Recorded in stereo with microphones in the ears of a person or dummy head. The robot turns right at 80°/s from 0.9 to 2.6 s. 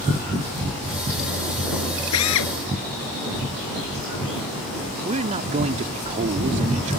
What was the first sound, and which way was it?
A drill, 90° left.